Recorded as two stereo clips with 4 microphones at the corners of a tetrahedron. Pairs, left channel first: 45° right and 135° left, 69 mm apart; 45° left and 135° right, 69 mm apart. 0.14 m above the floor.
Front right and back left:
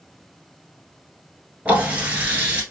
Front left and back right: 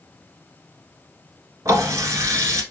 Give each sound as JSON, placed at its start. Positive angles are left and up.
{"t": 1.6, "sound": "a running tap", "azimuth_deg": -160, "distance_m": 1.2}